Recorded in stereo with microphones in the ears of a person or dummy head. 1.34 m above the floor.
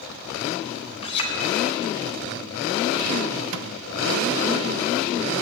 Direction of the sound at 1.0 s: 35° left (ahead or behind).